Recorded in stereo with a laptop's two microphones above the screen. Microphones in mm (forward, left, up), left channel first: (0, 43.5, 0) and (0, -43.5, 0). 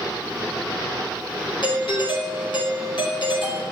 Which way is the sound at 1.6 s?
75° left (ahead or behind).